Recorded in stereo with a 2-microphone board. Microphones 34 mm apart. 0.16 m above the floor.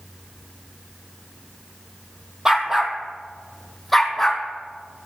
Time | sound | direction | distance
2.5 | a dog barking | 20° right (ahead or behind) | 1.4 m